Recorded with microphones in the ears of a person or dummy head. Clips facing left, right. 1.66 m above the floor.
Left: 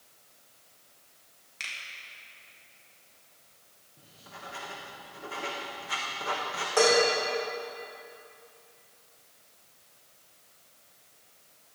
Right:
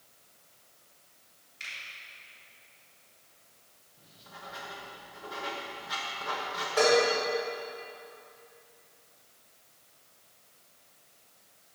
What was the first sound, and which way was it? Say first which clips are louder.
A finger snap: left 3 dB; 80° left.